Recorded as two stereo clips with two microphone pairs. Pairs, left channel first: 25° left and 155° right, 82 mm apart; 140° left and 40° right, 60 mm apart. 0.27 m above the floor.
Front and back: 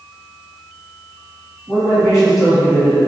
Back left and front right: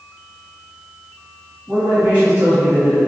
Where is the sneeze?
No sneeze in this recording.